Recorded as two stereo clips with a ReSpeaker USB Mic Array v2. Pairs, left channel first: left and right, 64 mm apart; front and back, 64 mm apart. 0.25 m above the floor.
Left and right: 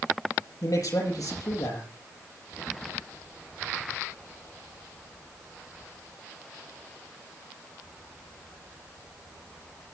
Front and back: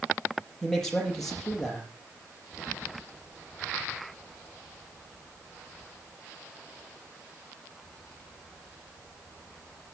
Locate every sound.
0.6 s a man speaking: 85° left, 6 m